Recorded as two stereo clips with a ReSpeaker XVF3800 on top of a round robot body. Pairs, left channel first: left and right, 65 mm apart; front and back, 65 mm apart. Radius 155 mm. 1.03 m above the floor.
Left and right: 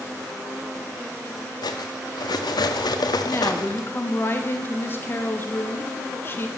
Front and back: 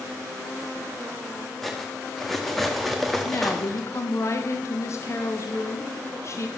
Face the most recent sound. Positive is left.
turn(degrees=40)